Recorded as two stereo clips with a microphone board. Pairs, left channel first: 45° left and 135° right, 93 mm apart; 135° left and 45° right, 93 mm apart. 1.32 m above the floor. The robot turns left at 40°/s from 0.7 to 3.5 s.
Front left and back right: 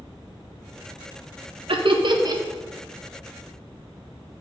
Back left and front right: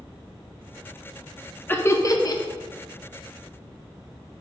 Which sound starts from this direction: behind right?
Laughter, at 1.7 s.